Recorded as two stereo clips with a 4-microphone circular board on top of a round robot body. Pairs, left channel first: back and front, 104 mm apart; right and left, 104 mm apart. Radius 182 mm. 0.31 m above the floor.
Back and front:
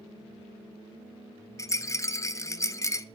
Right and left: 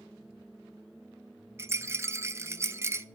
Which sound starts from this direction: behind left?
A rattle, at 1.6 s.